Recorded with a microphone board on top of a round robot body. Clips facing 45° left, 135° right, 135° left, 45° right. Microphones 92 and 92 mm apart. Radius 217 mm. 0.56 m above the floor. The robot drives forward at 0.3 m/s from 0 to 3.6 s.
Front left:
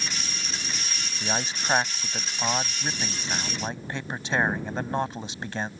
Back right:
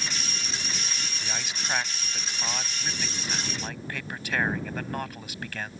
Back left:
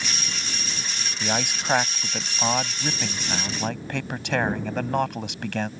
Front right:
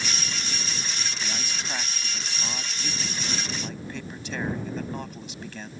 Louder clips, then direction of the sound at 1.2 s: Front left 8 dB, back left 7 dB; 100° left.